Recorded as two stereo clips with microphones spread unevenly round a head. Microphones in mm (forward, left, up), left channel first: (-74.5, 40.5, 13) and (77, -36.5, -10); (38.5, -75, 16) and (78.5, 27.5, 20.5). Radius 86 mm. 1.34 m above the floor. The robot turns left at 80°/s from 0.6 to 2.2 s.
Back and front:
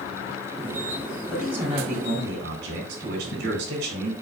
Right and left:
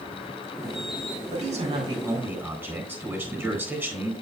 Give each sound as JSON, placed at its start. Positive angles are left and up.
{"t": 1.3, "sound": "a man speaking", "azimuth_deg": 70, "distance_m": 3.5}